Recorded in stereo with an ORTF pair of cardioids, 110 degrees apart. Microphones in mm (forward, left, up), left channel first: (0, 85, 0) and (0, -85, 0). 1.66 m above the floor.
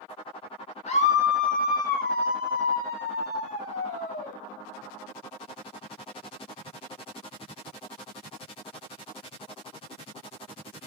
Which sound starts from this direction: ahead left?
A scream, at 0.9 s.